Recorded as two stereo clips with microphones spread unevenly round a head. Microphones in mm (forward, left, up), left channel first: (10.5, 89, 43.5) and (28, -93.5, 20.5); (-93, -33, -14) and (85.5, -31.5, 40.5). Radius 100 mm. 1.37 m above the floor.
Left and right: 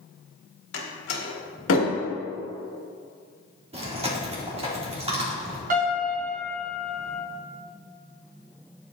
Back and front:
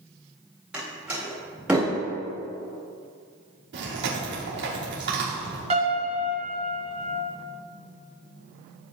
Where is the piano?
40° right, 2.5 m.